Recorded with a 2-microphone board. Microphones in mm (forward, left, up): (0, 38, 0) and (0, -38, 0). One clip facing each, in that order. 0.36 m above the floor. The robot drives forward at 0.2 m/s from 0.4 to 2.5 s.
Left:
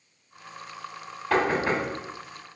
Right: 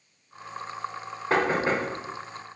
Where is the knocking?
25° right (ahead or behind), 1.0 m.